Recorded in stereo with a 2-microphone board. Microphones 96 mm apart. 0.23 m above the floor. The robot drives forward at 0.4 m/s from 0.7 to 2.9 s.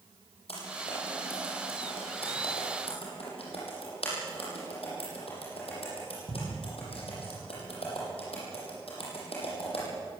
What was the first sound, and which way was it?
Typing on a keyboard, 80° left.